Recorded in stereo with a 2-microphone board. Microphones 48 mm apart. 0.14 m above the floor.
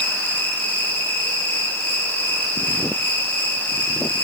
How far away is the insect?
About 2.5 m.